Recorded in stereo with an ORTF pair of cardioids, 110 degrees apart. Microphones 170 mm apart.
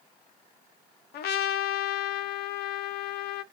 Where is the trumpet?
70° left, 0.7 m.